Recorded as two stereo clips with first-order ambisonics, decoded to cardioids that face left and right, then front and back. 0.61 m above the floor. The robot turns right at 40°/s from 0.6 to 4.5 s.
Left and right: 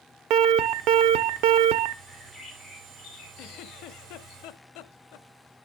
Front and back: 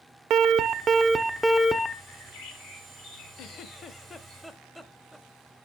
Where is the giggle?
45° left, 0.5 m; by 5.3 s 90° left, 0.5 m.